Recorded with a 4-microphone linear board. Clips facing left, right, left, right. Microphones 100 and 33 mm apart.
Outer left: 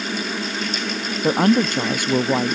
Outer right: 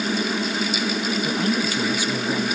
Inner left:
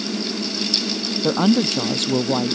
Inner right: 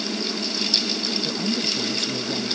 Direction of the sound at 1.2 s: 60° left (ahead or behind).